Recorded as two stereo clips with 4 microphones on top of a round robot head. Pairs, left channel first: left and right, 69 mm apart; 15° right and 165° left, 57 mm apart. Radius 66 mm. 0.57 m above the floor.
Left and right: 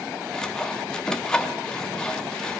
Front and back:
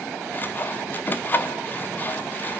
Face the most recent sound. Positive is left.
turn(degrees=15)